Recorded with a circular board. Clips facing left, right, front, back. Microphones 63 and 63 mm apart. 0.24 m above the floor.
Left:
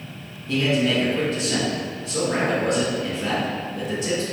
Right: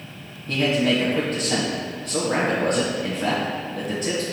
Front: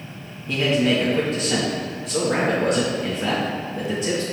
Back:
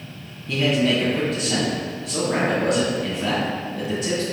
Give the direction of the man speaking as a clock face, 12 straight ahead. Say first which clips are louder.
Even, even; 3 o'clock.